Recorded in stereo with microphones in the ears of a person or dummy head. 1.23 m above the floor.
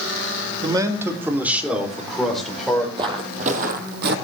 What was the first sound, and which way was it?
A man speaking, 25° right (ahead or behind).